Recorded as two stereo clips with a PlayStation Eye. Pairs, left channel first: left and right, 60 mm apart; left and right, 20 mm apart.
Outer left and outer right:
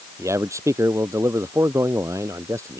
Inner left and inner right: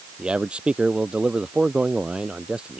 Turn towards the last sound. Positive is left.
turn(degrees=-65)  # may be behind; listen again after turning